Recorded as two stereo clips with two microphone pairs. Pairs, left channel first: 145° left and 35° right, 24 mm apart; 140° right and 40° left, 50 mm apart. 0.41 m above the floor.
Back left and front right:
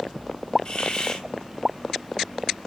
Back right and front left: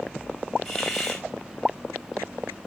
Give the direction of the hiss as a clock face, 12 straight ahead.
8 o'clock.